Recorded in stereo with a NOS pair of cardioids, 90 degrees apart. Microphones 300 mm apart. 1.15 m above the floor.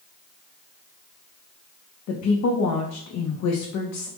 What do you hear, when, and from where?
2.1 s a woman speaking: 60° left, 0.6 m